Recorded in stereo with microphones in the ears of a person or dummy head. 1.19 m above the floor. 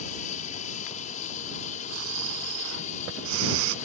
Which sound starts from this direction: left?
An aircraft, at 0.0 s.